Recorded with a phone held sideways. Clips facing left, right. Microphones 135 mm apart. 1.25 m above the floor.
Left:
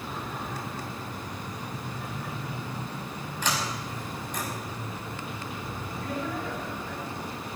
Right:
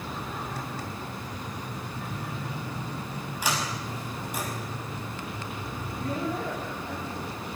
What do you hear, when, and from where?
3.4 s a sliding door: 10° right (ahead or behind), 5.5 m
6.0 s a man speaking: 25° right (ahead or behind), 3.5 m